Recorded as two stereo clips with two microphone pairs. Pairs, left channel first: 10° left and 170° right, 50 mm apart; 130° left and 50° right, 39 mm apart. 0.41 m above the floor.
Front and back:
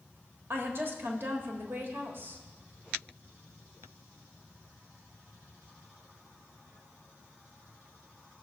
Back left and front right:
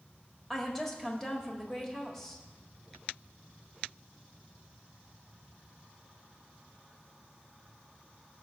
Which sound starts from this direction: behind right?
A woman speaking, at 0.5 s.